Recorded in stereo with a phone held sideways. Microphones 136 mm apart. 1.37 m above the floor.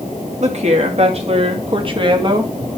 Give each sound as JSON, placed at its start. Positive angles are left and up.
{"t": 0.4, "sound": "a woman speaking", "side_deg": -55, "distance_m": 3.0}